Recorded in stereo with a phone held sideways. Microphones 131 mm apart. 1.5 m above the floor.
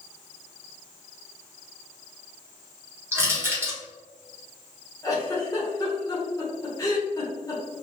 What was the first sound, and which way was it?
Crushing, 20° right (ahead or behind).